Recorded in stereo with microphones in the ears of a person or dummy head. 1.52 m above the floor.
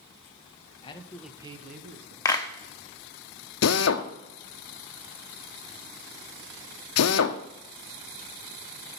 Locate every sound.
0.8 s a man speaking: 30° left (ahead or behind), 1.1 m; by 2.1 s 65° right (ahead or behind), 1.4 m
2.2 s a clap: 15° left (ahead or behind), 0.8 m
3.6 s a drill: 65° left (ahead or behind), 0.6 m